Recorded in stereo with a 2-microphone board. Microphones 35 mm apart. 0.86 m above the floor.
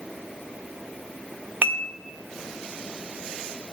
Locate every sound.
1.6 s dishes clattering: 55° right (ahead or behind), 1.0 m